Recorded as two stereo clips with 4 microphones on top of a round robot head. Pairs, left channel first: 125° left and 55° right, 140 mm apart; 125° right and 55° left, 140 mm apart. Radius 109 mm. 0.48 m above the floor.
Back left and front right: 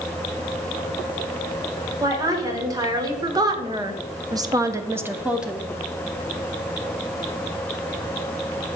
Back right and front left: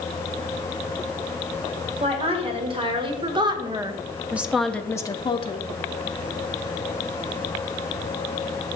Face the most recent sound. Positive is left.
turn(degrees=-140)